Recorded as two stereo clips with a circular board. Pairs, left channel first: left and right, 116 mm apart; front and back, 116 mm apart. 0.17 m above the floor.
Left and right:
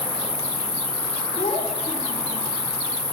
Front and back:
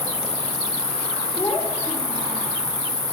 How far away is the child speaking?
About 5.5 m.